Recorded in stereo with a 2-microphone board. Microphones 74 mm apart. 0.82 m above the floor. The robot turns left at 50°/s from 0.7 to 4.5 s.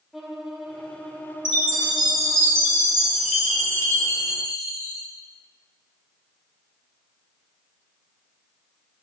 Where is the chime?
85° right, 2.5 m; by 5.0 s 120° left, 2.5 m.